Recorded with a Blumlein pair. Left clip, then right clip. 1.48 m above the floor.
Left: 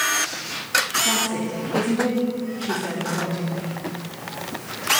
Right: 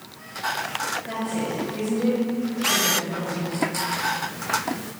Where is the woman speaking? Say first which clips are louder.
Left 5 dB; 50° left, 2.5 m.